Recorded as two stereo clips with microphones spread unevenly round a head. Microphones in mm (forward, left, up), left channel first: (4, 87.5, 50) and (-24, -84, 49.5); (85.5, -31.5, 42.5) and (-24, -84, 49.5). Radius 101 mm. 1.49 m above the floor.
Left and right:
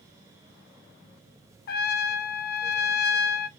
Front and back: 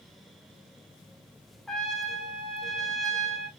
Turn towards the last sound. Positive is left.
turn(degrees=115)